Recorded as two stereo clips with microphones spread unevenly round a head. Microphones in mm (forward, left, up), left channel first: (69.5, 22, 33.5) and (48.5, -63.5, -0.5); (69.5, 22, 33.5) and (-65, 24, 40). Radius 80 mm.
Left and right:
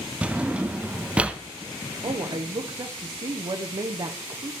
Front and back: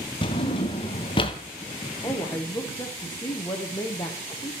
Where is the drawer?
5° left, 0.5 m.